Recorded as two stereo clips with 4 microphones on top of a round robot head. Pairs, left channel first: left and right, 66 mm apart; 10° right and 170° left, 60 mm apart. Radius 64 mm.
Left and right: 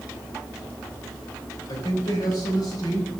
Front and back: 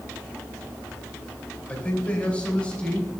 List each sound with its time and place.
1.7 s a man speaking: 60° left, 3 m; by 3.1 s 65° left, 4 m